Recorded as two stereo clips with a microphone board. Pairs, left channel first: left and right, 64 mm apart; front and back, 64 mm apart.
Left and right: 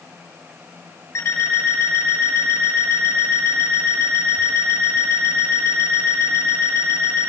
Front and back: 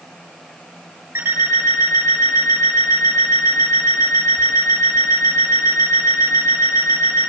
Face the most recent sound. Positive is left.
turn(degrees=135)